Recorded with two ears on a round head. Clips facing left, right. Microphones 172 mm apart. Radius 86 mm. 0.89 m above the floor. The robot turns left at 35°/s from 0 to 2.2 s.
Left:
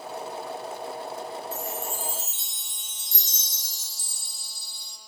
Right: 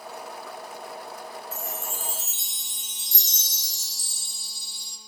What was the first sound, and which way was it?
A chime, 60° right (ahead or behind).